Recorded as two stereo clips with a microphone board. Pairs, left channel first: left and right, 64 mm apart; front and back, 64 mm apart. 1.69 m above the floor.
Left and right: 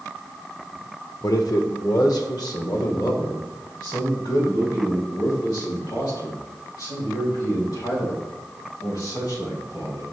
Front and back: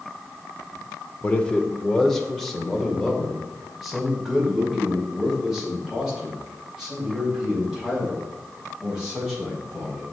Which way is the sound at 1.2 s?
65° left.